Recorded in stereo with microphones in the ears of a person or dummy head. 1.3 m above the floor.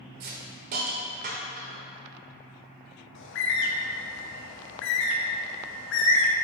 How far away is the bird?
About 0.9 m.